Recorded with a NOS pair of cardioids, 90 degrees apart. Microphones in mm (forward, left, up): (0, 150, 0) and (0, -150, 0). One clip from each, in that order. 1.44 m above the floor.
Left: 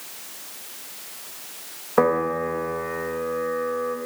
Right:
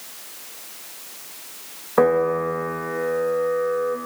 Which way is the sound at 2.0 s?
Straight ahead.